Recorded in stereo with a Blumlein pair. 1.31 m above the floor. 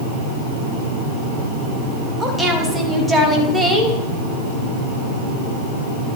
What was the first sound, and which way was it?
A woman speaking, 5° right.